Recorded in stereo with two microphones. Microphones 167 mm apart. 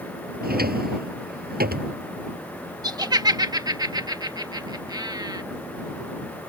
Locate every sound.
0.4 s a drawer: 65° right (ahead or behind)
2.8 s laughter: 25° right (ahead or behind)